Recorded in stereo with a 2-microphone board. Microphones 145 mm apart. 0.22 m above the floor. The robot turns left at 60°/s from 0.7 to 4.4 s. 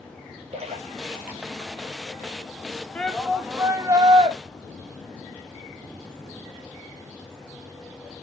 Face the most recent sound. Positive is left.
turn(degrees=-70)